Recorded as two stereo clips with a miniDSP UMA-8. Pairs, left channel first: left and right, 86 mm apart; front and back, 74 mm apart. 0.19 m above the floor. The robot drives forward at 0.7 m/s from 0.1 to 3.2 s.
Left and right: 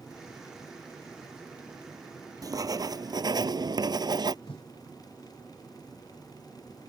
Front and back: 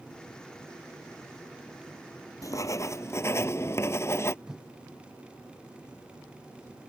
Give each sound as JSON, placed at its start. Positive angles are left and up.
{"t": 2.4, "sound": "writing", "azimuth_deg": -45}
{"t": 4.5, "sound": "a whoosh", "azimuth_deg": 100}